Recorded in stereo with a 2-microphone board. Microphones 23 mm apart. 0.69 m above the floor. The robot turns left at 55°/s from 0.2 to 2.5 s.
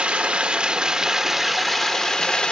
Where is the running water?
105° right, 0.8 m; by 2.5 s 130° left, 0.8 m.